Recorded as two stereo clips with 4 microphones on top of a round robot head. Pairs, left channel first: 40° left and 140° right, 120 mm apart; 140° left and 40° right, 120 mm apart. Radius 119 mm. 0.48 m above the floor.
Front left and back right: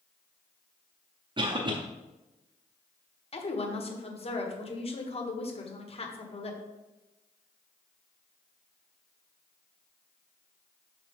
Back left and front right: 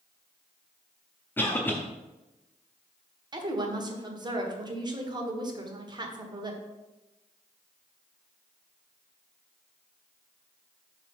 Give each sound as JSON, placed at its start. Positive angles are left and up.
{"t": 1.4, "sound": "a cough", "azimuth_deg": -155, "distance_m": 0.9}
{"t": 3.3, "sound": "a woman speaking", "azimuth_deg": 10, "distance_m": 1.4}